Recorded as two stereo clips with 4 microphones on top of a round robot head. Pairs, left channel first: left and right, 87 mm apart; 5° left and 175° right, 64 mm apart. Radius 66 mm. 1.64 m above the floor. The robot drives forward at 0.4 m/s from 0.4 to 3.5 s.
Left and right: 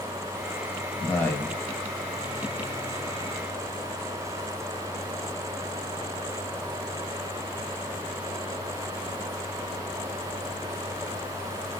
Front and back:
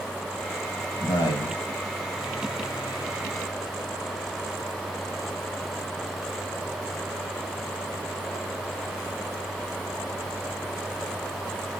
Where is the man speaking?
15° left, 2.5 m; by 1.6 s 20° left, 2.5 m.